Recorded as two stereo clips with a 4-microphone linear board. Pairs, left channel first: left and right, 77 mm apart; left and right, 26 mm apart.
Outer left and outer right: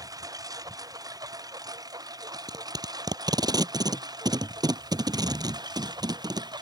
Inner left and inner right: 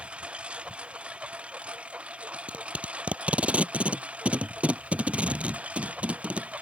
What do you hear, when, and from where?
0.0 s a lawn mower: 50° right (ahead or behind); by 6.6 s 60° right (ahead or behind)
2.3 s tape being pulled: 55° right (ahead or behind)